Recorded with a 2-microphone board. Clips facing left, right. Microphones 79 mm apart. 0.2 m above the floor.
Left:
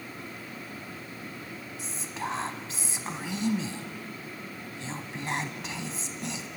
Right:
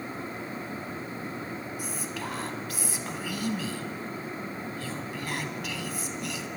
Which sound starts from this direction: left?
Whispering, at 1.8 s.